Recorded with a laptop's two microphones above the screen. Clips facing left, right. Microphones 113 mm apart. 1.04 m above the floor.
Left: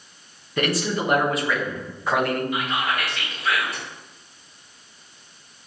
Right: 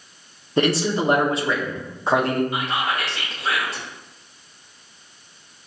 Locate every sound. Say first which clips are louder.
0.6 s a man speaking: right 4 dB; 30° right (ahead or behind), 0.5 m
2.5 s whispering: right 1 dB; 30° right (ahead or behind), 0.8 m